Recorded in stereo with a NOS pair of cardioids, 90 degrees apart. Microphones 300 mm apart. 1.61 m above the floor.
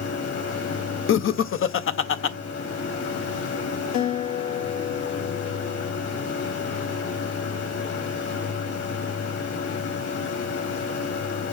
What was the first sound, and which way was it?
A machine running, 60° left.